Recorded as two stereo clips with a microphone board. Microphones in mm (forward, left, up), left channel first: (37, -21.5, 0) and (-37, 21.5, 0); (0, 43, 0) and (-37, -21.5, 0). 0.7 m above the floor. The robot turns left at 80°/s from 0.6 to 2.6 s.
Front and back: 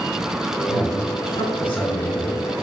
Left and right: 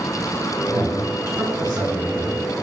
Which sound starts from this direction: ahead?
A man speaking, at 0.7 s.